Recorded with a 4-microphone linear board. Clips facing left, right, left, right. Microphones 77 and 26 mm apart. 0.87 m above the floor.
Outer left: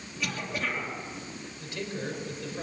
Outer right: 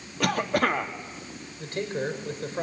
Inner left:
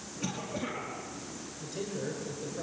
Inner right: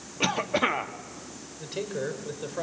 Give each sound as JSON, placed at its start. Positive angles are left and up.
{"t": 0.2, "sound": "a cough", "side_deg": -60, "distance_m": 2.0}
{"t": 1.6, "sound": "a man speaking", "side_deg": -40, "distance_m": 4.5}